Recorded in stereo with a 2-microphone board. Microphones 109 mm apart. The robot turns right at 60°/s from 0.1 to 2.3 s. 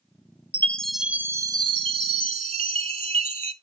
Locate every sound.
0.5 s a chime: 160° left, 0.6 m; by 3.5 s 95° right, 0.6 m